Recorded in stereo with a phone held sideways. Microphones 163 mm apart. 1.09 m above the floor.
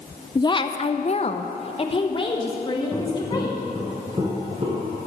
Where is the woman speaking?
20° left (ahead or behind), 0.6 m; by 3.6 s 25° left (ahead or behind), 2 m.